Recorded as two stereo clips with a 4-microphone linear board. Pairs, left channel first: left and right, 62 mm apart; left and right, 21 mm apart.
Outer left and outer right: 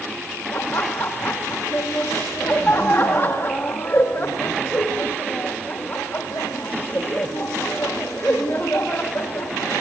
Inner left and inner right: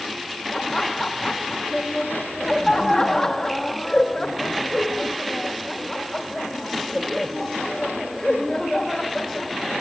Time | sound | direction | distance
0.5 | laughter | 40° left (ahead or behind) | 1.3 m